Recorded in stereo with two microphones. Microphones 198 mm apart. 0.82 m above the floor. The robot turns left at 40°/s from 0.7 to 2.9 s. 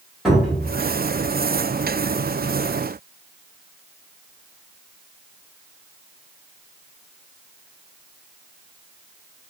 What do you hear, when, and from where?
0.2 s a cupboard door: centre (ahead or behind), 1.4 m